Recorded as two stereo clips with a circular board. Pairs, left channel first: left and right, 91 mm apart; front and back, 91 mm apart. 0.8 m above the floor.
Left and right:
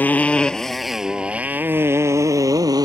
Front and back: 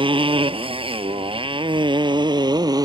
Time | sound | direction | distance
0.0 | a motorcycle | 160° left | ?